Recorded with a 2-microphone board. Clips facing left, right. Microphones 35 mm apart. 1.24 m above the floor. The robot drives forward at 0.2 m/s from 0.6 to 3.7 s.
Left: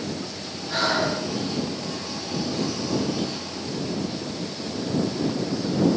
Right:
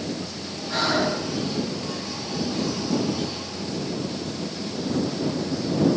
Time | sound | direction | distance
0.7 | breathing | 5° left (ahead or behind) | 1.6 m